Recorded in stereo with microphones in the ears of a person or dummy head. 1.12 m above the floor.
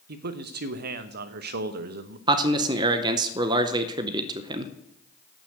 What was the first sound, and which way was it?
A man speaking, 55° right (ahead or behind).